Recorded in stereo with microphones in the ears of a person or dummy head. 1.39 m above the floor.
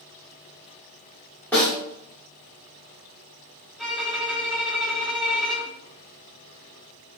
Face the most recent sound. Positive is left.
turn(degrees=5)  # may be behind; listen again after turning